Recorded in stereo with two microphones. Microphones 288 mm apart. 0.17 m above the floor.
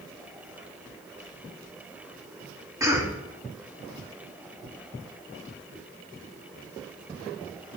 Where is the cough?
10° right (ahead or behind), 1.1 m.